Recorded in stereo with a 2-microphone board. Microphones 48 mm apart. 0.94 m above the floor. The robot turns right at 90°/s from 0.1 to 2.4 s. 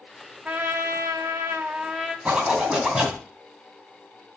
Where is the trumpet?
150° right, 0.9 m; by 2.1 s straight ahead, 0.9 m.